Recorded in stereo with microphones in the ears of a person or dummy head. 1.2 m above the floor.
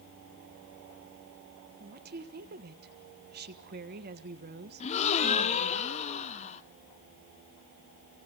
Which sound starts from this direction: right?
A woman speaking, at 1.8 s.